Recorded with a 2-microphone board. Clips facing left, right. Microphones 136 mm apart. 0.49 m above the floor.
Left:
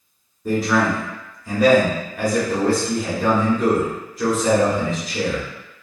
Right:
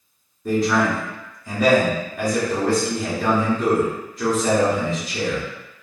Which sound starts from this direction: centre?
A man speaking, at 0.5 s.